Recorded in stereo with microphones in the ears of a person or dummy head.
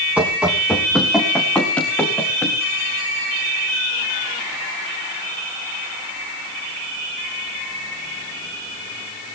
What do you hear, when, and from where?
0.2 s running footsteps: 10° right (ahead or behind), 3 m; by 2.6 s 10° left (ahead or behind), 5 m